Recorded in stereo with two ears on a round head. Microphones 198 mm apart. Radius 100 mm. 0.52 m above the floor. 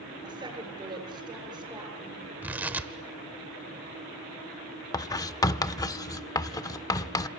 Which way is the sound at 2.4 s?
10° right (ahead or behind).